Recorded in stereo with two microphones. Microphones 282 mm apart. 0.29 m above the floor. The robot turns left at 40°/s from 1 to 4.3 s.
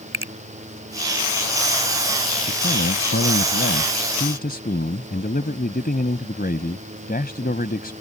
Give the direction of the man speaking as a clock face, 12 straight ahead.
8 o'clock.